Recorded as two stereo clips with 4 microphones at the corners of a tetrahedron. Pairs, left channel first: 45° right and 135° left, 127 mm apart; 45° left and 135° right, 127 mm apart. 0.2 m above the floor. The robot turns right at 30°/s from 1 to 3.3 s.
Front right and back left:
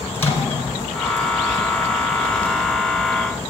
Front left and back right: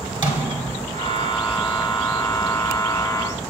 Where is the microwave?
110° right, 1.3 m.